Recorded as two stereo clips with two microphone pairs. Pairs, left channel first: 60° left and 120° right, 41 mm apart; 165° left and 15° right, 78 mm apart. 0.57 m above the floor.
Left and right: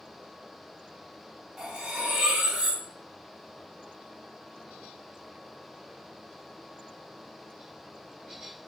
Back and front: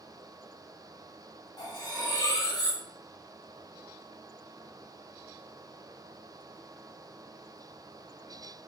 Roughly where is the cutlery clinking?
Behind.